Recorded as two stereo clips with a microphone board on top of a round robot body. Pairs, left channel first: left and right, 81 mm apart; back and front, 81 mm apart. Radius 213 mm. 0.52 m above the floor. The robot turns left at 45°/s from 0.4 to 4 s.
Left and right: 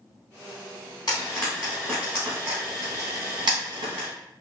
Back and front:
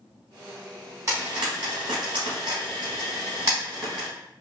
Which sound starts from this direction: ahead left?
Frying, at 1.1 s.